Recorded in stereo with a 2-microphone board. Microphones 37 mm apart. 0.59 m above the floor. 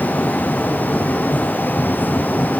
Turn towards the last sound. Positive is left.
No sound to turn to.